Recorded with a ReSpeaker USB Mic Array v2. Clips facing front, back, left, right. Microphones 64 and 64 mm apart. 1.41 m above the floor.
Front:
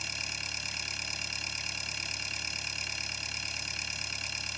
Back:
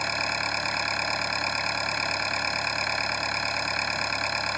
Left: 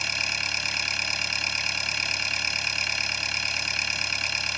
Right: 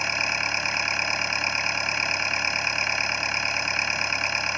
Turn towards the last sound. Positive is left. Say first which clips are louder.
# back 13 dB, right 4 dB
turn(degrees=-150)